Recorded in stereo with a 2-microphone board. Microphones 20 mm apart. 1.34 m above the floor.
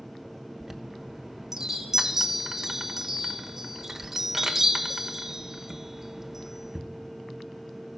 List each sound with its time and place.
0.6 s a chime: 25° right (ahead or behind), 1.1 m